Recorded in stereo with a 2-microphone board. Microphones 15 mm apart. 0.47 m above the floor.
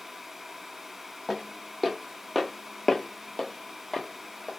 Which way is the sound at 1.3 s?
10° right (ahead or behind).